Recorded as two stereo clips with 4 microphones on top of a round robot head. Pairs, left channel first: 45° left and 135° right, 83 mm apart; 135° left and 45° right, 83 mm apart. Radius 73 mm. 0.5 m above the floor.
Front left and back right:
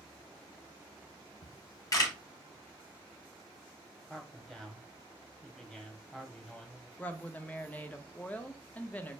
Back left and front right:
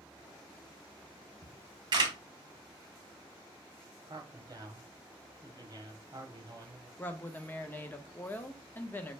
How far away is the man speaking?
About 1.2 m.